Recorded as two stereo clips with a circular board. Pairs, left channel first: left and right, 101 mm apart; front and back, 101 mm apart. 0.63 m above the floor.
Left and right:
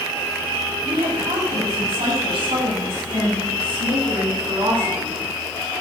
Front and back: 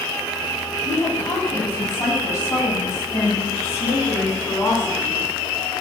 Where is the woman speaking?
65° right, 4.5 m; by 5.2 s 60° right, 7 m.